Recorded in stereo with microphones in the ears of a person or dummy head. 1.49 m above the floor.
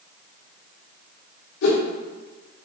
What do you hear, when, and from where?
1.6 s a whoosh: 60° left (ahead or behind), 0.7 m